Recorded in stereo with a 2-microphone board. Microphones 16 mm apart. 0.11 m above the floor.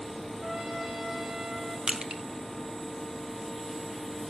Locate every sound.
0.4 s a trumpet: 30° right (ahead or behind), 8 m
1.9 s crushing: 50° right (ahead or behind), 1.6 m